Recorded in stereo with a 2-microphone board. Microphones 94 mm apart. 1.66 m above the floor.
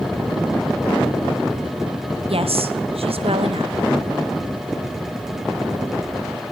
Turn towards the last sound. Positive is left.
turn(degrees=-80)